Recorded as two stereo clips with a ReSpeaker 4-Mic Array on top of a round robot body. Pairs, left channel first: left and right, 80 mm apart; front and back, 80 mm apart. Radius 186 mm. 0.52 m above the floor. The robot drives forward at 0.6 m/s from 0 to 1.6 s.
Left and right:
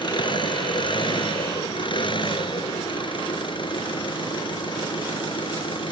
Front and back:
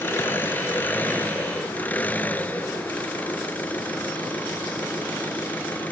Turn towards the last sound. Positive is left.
turn(degrees=75)